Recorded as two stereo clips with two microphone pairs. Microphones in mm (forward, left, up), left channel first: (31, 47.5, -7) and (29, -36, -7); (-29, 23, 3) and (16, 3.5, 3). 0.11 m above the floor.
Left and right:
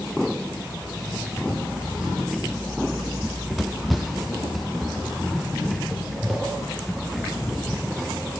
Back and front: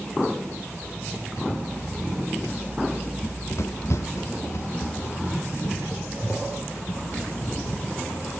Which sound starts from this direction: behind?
Running footsteps, at 3.2 s.